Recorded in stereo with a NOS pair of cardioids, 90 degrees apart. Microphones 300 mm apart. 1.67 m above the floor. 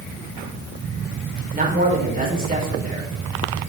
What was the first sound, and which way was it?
A man speaking, 30° right.